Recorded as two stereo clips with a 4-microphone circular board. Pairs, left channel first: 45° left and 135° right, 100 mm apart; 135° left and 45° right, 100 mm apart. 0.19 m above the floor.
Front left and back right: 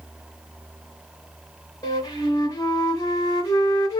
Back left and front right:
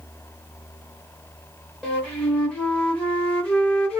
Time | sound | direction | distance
1.8 | a flute | 65° left | 1.8 m